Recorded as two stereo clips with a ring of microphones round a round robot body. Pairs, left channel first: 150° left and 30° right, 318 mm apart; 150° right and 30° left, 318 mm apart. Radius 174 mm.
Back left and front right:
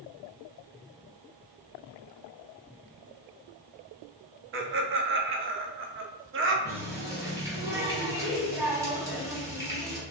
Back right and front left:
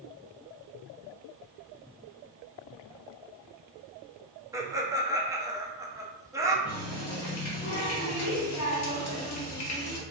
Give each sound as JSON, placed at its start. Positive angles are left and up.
{"t": 4.5, "sound": "laughter", "azimuth_deg": -45, "distance_m": 0.5}
{"t": 6.7, "sound": "a running tap", "azimuth_deg": -110, "distance_m": 0.9}